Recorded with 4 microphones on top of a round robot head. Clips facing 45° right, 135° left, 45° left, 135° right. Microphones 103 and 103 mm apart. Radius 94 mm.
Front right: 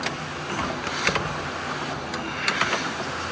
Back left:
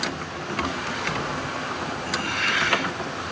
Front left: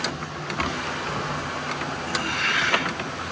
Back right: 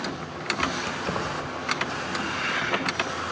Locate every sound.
0.8 s keys jangling: 85° right, 1.5 m